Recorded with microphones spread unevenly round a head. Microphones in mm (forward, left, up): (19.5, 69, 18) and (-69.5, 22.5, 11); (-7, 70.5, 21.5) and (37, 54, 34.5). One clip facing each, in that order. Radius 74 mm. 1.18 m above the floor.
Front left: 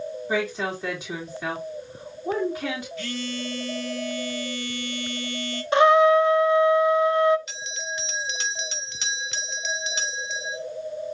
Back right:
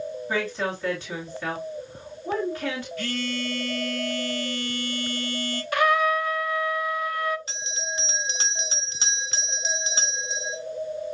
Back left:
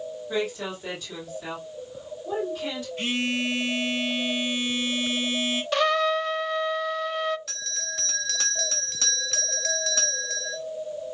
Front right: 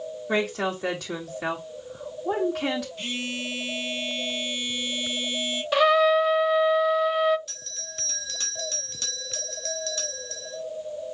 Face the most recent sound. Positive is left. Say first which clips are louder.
# even, back left 8 dB
turn(degrees=150)